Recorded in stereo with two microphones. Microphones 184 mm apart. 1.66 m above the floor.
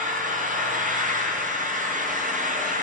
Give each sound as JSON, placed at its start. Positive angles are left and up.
{"t": 0.0, "sound": "an engine running", "side_deg": -45, "distance_m": 0.9}